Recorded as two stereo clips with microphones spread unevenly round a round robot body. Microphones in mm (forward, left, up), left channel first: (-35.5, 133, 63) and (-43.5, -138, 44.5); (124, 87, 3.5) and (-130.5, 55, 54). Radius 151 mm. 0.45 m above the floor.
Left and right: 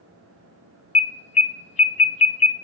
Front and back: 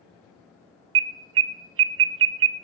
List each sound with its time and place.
0.9 s an alarm: 155° left, 0.6 m